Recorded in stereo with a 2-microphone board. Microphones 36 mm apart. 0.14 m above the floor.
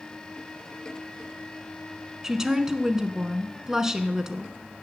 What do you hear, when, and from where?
2.2 s a woman speaking: 15° right (ahead or behind), 1.1 m